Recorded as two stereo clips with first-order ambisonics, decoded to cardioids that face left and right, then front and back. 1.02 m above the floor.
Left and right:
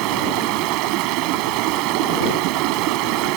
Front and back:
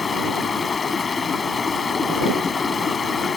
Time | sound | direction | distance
0.0 | running water | 70° right | ?